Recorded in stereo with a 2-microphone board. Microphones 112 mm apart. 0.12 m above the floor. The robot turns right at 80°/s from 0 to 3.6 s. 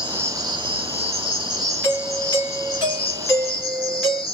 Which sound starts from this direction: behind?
An insect, at 0.0 s.